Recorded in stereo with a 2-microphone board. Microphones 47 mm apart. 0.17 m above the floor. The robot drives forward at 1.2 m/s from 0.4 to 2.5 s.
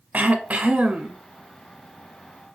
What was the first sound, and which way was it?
Throat clearing, 35° right (ahead or behind).